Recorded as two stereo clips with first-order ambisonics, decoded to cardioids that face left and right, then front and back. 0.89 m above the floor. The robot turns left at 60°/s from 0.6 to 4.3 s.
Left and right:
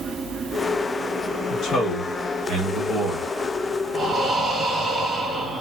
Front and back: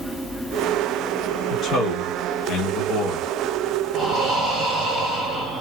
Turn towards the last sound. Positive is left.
turn(degrees=-175)